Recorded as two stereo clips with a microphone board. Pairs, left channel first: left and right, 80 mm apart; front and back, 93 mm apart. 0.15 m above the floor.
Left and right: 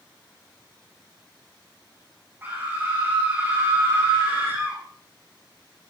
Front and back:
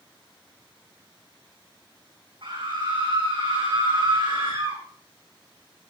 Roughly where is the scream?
Behind right.